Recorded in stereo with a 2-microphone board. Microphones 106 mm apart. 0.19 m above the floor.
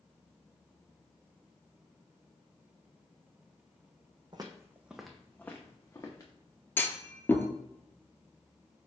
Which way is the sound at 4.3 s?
40° right (ahead or behind).